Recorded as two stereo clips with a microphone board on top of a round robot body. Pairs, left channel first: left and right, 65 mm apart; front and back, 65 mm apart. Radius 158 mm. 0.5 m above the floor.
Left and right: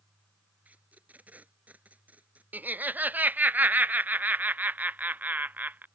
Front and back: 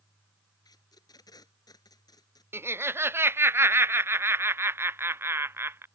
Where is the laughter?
140° right.